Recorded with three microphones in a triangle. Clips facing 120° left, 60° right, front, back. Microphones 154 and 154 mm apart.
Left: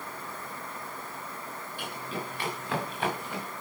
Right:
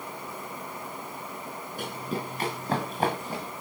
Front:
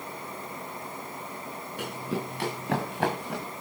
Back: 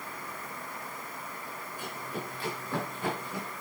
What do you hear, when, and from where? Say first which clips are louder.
1.8 s running footsteps: right 4 dB, front 7 dB; 15° right, 7.5 m; by 3.5 s 5° right, 9.5 m